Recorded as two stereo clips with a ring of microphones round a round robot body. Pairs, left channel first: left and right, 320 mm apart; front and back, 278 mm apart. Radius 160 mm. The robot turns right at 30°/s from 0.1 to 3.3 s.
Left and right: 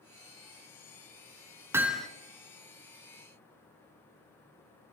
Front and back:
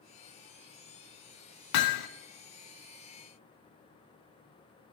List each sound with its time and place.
1.7 s hammering: 5° right, 0.8 m; by 2.1 s 5° left, 0.8 m